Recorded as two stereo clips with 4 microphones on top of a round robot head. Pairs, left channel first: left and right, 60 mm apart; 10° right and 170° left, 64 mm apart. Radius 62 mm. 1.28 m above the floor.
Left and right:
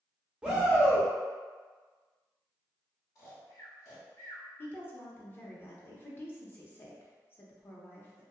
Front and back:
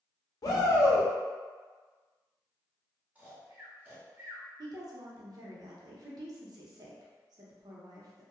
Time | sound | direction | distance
0.4 | a shout | 20° right | 0.6 m
3.1 | snoring | 105° left | 1.0 m
4.6 | a woman speaking | 145° left | 0.7 m